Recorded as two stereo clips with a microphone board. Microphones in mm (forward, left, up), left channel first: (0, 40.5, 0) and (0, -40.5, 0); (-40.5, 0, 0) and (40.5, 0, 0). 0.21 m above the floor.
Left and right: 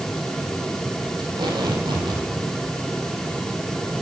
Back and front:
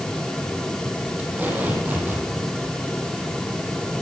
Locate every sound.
1.2 s tape being pulled: 65° right, 7.5 m